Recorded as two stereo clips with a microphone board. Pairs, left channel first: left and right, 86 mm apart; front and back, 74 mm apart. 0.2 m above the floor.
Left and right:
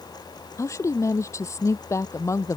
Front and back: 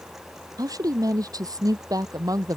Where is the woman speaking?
145° left.